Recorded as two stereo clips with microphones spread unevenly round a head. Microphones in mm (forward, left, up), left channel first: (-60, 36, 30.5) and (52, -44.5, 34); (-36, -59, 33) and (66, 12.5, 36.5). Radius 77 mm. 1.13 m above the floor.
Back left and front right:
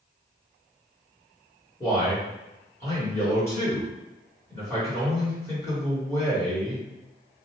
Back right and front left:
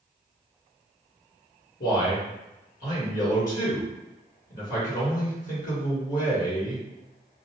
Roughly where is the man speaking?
Behind right.